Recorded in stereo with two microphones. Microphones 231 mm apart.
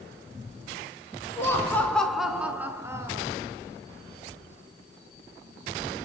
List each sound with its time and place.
1.4 s laughter: 10° left (ahead or behind), 1.2 m; by 3.2 s 15° right (ahead or behind), 1.5 m